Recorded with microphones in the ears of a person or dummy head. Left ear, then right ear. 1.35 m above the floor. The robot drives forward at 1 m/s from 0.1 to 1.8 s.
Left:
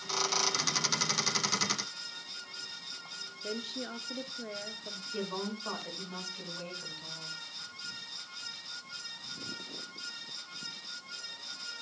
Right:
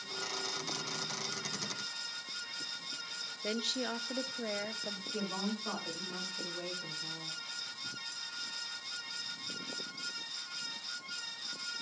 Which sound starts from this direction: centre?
A woman speaking, at 5.1 s.